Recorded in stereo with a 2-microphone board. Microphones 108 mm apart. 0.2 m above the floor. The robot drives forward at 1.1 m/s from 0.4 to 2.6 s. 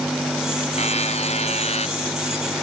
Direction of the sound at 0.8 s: 80° left.